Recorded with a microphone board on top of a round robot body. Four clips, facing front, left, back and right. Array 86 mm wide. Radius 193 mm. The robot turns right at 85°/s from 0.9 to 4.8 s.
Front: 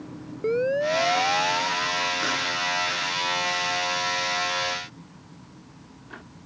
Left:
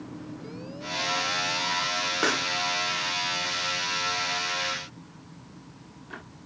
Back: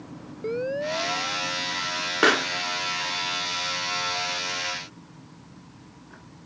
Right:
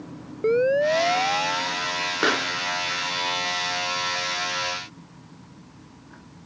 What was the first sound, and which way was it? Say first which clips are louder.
A siren: right 24 dB, front 5 dB; 80° right.